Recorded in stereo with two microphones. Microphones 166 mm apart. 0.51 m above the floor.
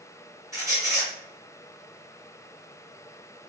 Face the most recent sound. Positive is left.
turn(degrees=-20)  # may be behind; listen again after turning